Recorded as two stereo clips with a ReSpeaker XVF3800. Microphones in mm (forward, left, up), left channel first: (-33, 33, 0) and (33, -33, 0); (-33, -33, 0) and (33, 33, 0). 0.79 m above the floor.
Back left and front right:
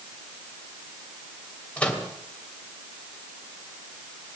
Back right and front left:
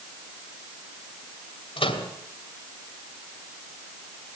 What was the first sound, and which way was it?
A microwave, 150° right.